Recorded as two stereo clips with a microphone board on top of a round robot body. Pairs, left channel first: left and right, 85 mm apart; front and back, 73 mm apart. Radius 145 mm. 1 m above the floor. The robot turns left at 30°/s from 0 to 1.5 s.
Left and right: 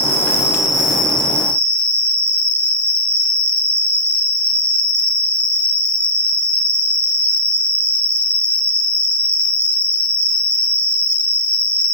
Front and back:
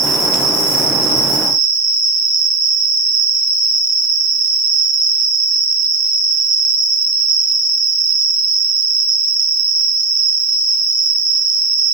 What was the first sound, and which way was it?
An insect, 155° right.